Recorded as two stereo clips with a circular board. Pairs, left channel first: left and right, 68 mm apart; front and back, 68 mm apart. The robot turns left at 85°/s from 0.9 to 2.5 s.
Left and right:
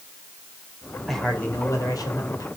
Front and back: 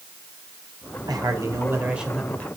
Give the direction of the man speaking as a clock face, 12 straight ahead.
6 o'clock.